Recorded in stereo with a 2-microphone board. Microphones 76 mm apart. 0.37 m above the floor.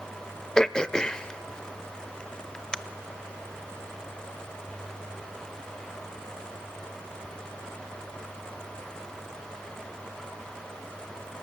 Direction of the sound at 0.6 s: 10° left (ahead or behind).